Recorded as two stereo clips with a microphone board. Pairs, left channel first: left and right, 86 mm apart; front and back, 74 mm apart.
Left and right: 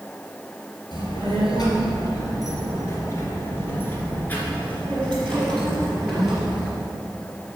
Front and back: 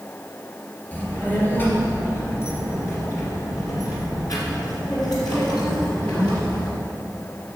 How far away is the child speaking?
About 3 m.